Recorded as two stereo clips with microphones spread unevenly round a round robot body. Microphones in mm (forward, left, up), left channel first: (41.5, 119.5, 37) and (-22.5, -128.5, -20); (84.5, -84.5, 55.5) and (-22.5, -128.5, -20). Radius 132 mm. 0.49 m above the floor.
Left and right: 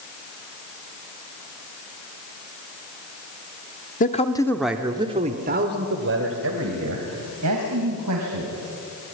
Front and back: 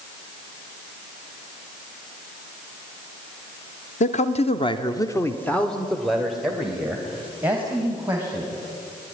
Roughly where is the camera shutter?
No camera shutter in this recording.